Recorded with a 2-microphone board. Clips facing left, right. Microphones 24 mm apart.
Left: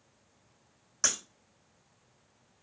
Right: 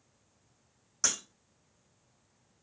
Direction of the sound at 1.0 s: 10° left (ahead or behind).